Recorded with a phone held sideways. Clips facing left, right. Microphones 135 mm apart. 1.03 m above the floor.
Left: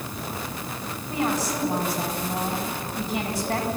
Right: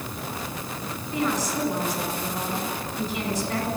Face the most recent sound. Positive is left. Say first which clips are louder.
# even
turn(degrees=55)  # may be behind; listen again after turning